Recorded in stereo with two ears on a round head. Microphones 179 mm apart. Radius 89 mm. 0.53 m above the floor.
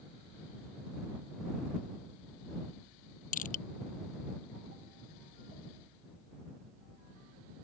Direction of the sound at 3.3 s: 45° left (ahead or behind).